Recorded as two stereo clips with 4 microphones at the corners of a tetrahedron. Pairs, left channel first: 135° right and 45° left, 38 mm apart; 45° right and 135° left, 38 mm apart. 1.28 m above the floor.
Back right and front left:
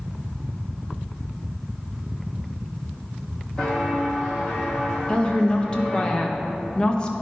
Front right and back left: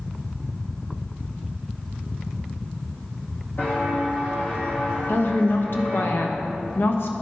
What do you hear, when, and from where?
3.6 s footsteps: 55° right, 3 m; by 6.1 s 50° right, 5.5 m
5.1 s a woman speaking: 65° right, 1.0 m